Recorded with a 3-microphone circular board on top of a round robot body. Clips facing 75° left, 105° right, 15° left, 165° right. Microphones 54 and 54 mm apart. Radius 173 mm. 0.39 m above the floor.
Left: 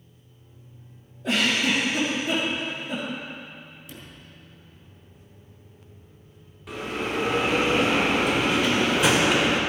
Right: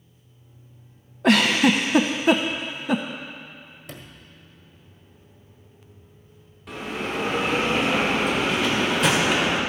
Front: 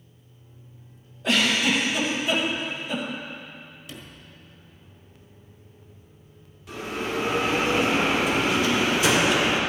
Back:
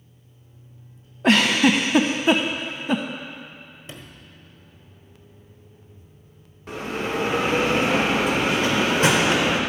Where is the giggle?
125° right, 0.6 m.